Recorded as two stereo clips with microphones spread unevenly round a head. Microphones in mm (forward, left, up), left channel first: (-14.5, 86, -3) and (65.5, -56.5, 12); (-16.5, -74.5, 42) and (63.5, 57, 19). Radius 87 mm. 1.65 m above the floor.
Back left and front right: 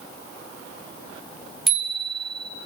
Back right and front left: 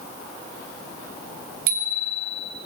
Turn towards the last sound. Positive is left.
turn(degrees=30)